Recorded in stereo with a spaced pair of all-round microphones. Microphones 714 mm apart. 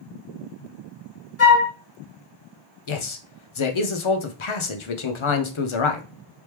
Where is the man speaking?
45° left (ahead or behind), 0.6 m.